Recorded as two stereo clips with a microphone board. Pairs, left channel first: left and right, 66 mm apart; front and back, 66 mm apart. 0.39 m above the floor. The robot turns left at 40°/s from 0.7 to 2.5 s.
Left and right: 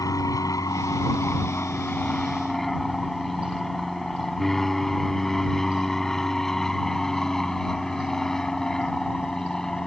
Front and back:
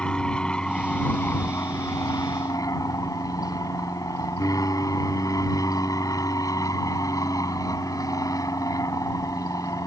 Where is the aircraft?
75° left; by 9.9 s 10° left.